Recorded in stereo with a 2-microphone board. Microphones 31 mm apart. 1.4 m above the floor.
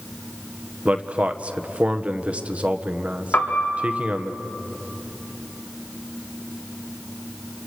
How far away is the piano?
About 3.5 m.